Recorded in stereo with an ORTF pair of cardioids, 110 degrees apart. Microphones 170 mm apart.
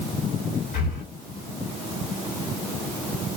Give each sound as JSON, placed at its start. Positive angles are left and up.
{"t": 0.7, "sound": "breathing", "azimuth_deg": 55, "distance_m": 1.9}